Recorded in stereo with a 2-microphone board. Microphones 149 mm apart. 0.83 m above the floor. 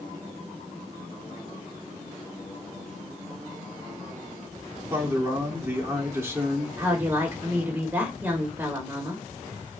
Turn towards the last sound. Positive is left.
turn(degrees=-15)  # may be behind; listen again after turning